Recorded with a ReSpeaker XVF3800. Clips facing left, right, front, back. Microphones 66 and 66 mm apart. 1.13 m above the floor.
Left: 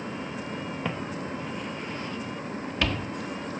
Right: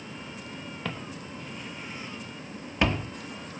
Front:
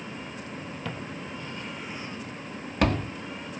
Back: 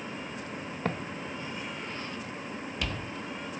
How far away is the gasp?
No gasp in this recording.